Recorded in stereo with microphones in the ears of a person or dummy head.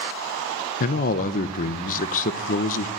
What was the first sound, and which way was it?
A man speaking, 50° left (ahead or behind).